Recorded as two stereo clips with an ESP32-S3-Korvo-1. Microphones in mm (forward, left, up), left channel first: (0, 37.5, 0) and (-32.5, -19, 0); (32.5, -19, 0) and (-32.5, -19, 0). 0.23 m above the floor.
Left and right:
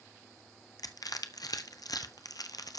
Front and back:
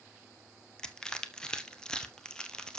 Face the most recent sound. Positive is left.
turn(degrees=75)